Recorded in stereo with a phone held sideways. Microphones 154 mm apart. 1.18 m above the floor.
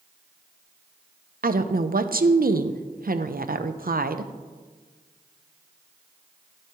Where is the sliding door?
No sliding door in this recording.